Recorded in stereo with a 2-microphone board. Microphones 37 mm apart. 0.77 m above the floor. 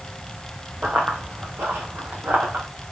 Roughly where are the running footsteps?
Right.